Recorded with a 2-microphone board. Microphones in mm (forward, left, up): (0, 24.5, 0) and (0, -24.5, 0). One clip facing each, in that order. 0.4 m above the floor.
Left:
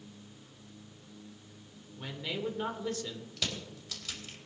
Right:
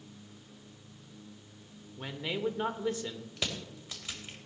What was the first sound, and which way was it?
A man speaking, 20° right (ahead or behind).